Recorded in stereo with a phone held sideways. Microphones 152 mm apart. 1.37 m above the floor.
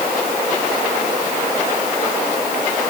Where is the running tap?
No running tap in this recording.